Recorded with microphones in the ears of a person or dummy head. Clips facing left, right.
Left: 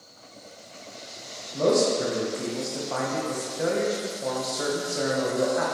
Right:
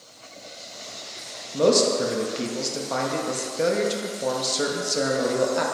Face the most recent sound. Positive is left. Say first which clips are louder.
# right 2 dB
turn(degrees=-40)  # may be behind; listen again after turning